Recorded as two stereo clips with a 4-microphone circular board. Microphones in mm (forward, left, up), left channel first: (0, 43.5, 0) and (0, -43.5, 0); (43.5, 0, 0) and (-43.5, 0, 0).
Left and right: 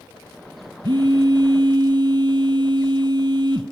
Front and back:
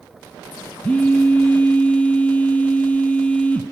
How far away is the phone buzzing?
About 1.2 m.